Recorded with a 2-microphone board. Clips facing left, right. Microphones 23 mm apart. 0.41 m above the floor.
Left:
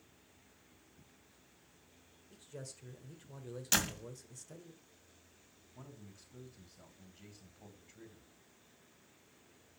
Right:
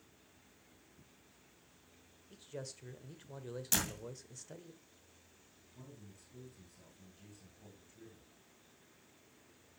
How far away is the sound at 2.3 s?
About 1.3 m.